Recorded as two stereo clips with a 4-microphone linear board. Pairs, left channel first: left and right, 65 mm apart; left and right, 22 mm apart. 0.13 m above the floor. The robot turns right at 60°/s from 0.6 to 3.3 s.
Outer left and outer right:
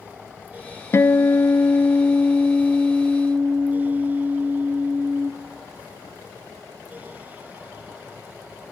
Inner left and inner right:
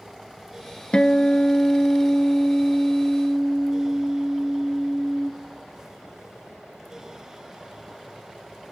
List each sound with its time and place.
0.9 s a guitar: 55° left, 0.8 m; by 5.3 s 160° right, 0.8 m